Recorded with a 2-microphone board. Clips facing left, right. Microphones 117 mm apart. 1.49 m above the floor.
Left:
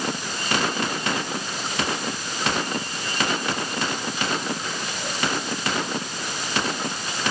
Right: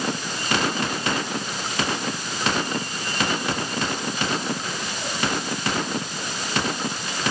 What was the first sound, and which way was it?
Only background noise.